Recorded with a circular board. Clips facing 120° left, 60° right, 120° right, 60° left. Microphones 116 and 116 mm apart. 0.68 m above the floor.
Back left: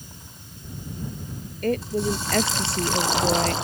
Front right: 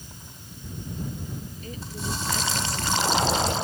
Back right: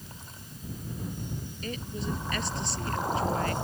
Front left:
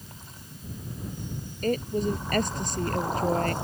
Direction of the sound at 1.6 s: 100° left.